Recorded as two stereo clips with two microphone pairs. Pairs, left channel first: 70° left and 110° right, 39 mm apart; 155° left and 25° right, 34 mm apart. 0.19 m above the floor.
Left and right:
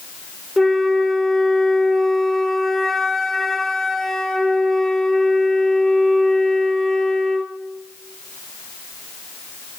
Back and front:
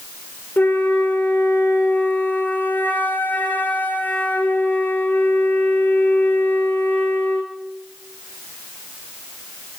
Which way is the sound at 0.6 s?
160° left.